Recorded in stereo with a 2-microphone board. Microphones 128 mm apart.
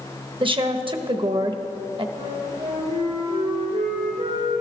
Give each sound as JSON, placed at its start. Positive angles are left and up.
{"t": 0.4, "sound": "a woman speaking", "side_deg": -40, "distance_m": 0.9}
{"t": 2.1, "sound": "a flute", "side_deg": -75, "distance_m": 4.5}